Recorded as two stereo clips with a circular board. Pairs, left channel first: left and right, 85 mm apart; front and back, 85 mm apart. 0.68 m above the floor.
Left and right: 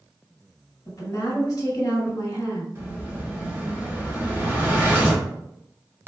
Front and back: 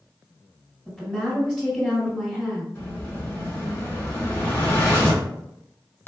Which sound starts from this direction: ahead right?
An explosion, at 2.8 s.